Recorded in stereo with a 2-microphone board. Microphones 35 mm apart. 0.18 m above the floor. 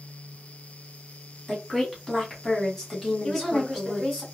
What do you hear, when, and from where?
1.5 s a woman speaking: 5° left (ahead or behind), 1.3 m; by 4.2 s 15° left (ahead or behind), 1.4 m
3.2 s a woman speaking: 5° right (ahead or behind), 1.6 m